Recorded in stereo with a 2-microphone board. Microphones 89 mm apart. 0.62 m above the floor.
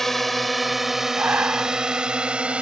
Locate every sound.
0.0 s a drone: 5° left (ahead or behind); by 2.6 s 15° right (ahead or behind)
1.2 s breathing: 20° right (ahead or behind)